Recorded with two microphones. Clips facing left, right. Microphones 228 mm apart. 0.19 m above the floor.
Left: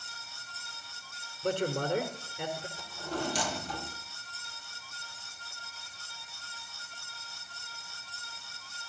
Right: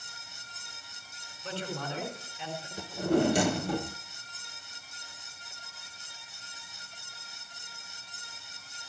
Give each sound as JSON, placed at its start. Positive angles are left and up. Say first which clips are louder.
{"t": 1.4, "sound": "a man speaking", "louder": "left 7 dB", "side_deg": 70, "distance_m": 4.5}
{"t": 2.8, "sound": "a drawer", "louder": "right 14 dB", "side_deg": -65, "distance_m": 1.3}